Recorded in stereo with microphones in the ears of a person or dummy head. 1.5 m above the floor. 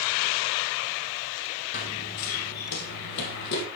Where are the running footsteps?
40° left (ahead or behind), 1.8 m; by 3.7 s 65° left (ahead or behind), 3.5 m.